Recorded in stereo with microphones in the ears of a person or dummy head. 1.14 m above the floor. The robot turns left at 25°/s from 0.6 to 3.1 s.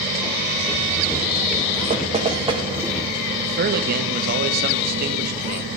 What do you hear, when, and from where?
1.9 s knocking: 35° right (ahead or behind), 1.2 m; by 2.6 s 20° right (ahead or behind), 1.2 m
3.4 s a man speaking: 60° right (ahead or behind), 1.0 m